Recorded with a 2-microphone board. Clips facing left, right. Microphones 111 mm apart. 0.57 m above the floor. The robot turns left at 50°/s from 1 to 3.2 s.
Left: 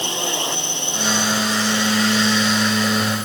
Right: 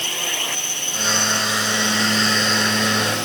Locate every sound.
0.0 s a drone: 20° left; by 3.2 s 90° right